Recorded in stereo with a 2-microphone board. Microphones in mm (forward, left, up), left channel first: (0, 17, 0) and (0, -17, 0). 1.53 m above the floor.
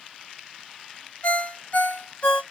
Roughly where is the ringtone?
Left.